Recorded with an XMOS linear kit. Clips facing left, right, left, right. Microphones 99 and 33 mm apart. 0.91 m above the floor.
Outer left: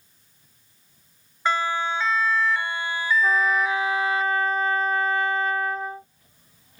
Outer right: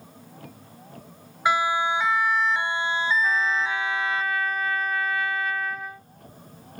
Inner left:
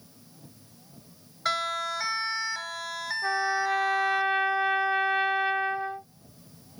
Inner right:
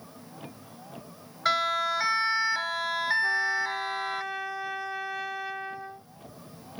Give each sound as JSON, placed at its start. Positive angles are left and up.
{"t": 0.0, "sound": "a vehicle", "side_deg": -80}
{"t": 1.4, "sound": "a siren", "side_deg": -10}
{"t": 3.2, "sound": "a trumpet", "side_deg": 35}